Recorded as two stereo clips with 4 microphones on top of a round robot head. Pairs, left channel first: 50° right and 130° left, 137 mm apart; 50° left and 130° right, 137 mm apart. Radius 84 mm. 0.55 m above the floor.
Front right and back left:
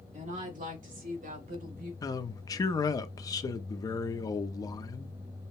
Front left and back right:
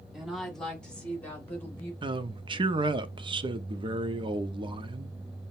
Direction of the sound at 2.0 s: 100° right.